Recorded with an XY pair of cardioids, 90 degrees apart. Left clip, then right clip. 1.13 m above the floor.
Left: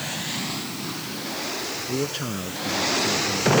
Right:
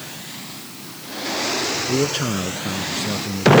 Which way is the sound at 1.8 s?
45° right.